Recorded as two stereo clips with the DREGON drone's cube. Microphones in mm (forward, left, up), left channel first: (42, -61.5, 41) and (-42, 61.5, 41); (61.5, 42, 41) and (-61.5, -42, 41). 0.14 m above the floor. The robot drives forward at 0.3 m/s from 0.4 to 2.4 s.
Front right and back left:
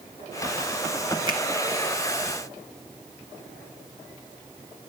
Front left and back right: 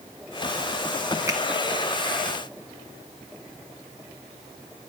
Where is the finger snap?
160° left, 1.6 m.